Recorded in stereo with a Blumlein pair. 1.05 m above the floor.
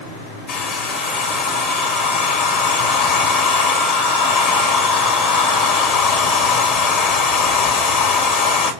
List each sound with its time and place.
0.5 s a hair dryer: 35° left, 1.8 m